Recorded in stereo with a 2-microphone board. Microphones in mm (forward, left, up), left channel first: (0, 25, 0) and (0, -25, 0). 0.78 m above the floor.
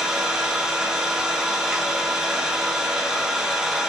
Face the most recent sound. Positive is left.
turn(degrees=-5)  # may be behind; listen again after turning